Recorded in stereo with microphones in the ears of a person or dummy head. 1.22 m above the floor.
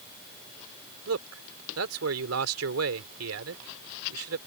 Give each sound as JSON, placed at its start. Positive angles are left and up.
{"t": 1.1, "sound": "a man speaking", "side_deg": -85}